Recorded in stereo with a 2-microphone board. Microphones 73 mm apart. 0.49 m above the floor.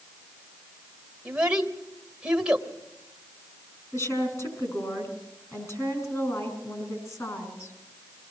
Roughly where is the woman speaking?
Left.